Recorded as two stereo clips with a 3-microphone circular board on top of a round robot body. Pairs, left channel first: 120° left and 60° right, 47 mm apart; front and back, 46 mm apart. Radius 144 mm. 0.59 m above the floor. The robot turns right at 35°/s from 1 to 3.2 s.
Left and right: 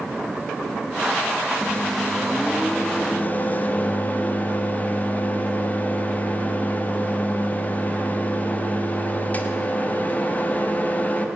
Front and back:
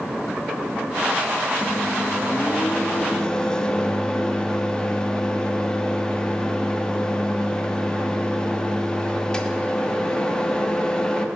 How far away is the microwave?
About 1.4 m.